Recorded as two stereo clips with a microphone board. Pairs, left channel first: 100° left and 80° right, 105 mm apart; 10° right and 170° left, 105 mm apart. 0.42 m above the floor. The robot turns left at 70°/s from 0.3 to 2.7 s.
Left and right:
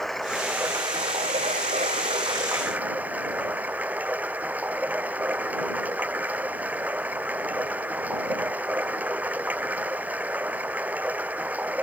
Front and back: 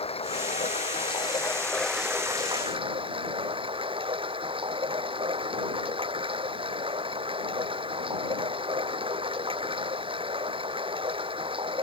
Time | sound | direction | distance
0.0 | running water | 15° left | ?